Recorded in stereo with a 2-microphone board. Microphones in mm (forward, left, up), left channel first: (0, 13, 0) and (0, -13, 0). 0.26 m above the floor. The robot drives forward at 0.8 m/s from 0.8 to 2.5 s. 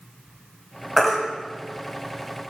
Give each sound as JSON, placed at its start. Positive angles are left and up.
{"t": 1.0, "sound": "a baby crying", "side_deg": 10, "distance_m": 1.0}